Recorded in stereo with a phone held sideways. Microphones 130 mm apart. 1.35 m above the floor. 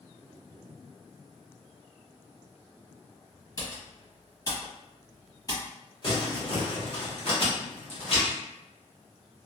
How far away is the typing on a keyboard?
About 1.2 m.